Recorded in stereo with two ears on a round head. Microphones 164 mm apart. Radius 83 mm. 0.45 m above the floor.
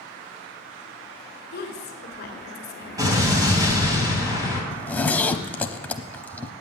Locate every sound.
1.5 s a woman speaking: 55° left (ahead or behind), 2 m
3.0 s an explosion: 20° right (ahead or behind), 2.5 m
4.7 s a zipper: 10° left (ahead or behind), 0.7 m